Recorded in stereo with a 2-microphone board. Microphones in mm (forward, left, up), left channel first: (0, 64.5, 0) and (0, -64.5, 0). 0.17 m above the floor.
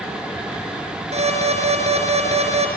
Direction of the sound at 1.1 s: 55° right (ahead or behind).